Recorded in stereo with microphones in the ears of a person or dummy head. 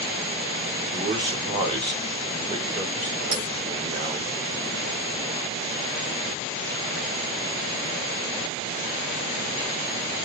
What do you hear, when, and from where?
0.9 s a man speaking: 25° right (ahead or behind), 2.5 m
3.3 s a bell: 50° right (ahead or behind), 7 m